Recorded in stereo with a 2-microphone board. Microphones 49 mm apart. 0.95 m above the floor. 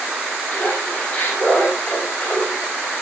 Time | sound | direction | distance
0.5 | laughter | 25° left (ahead or behind) | 6 m